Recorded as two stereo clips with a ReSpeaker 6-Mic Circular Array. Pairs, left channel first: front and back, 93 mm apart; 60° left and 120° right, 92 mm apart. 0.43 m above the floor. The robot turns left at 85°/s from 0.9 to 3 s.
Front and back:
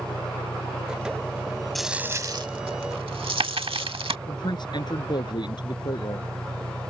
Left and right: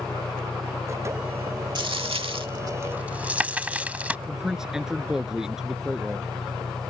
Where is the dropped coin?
85° right; by 4.2 s 165° left.